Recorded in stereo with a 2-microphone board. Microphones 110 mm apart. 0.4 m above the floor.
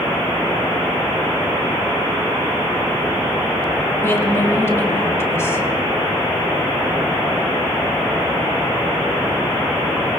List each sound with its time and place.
4.0 s a woman speaking: 25° left (ahead or behind), 1.8 m